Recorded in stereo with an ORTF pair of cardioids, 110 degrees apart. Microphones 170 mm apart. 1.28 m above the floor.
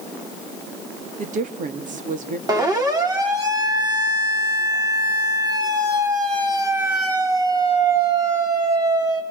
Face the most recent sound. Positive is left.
turn(degrees=-20)